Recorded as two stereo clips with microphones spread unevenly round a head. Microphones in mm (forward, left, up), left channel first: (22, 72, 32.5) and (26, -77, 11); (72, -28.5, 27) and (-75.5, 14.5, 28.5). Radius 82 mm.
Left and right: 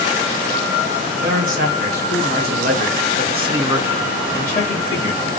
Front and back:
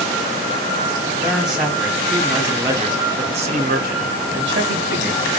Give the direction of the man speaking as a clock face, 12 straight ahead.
4 o'clock.